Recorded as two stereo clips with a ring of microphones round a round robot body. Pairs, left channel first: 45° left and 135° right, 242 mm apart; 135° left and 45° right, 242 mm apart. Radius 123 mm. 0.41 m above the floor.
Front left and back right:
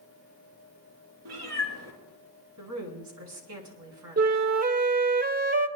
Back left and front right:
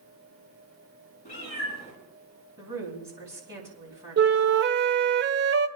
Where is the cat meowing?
160° right, 6.5 m.